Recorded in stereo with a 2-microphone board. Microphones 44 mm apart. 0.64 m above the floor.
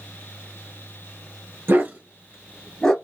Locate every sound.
1.7 s a dog barking: 55° right (ahead or behind), 0.7 m; by 2.9 s 10° left (ahead or behind), 1.1 m